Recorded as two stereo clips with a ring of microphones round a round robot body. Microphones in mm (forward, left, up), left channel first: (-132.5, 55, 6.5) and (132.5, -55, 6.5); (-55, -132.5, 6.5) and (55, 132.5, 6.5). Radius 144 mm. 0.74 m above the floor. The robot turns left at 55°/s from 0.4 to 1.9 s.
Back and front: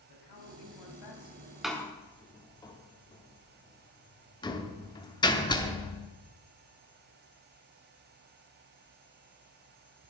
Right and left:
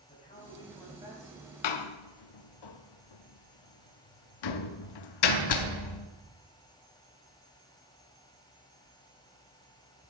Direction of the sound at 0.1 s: Straight behind.